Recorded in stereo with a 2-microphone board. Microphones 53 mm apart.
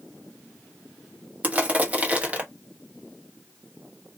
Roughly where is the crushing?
Right.